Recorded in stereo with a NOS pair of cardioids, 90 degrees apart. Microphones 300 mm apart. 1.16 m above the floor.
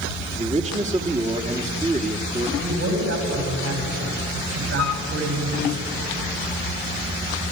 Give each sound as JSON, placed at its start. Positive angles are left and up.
{"t": 0.3, "sound": "a man speaking", "azimuth_deg": -25, "distance_m": 2.0}
{"t": 2.6, "sound": "a man speaking", "azimuth_deg": -50, "distance_m": 6.5}
{"t": 4.8, "sound": "a flute", "azimuth_deg": 70, "distance_m": 1.3}